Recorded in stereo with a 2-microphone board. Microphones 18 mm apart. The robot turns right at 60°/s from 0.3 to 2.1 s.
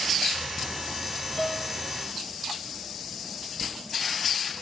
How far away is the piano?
About 1.5 m.